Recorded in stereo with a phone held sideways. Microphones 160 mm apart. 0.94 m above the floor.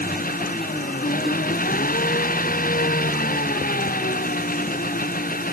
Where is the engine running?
60° left (ahead or behind).